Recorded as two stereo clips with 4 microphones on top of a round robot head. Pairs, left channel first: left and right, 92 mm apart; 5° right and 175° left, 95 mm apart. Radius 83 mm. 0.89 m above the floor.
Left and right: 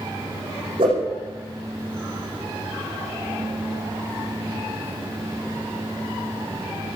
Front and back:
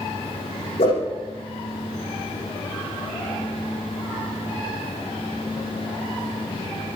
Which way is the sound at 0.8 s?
40° right.